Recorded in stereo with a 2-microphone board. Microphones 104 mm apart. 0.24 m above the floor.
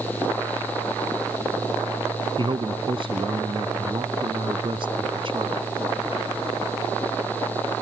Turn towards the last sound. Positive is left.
turn(degrees=-55)  # may be behind; listen again after turning